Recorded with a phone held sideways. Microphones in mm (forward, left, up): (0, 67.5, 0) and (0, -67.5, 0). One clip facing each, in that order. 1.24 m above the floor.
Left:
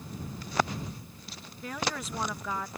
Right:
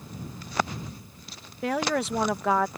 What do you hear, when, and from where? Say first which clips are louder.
1.6 s a woman speaking: right 9 dB; 75° right (ahead or behind)